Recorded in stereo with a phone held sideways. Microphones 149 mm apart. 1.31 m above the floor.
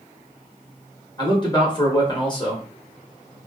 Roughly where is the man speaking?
Left.